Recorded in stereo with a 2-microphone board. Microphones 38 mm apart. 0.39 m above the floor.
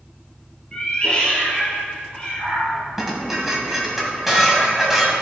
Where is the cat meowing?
25° left (ahead or behind), 3 m.